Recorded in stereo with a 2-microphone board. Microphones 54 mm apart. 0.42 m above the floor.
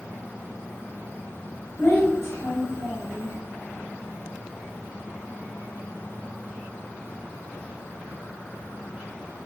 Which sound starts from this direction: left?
A child speaking, at 1.8 s.